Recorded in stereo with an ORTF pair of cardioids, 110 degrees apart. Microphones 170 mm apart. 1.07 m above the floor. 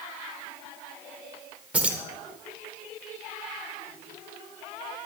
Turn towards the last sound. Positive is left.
turn(degrees=-10)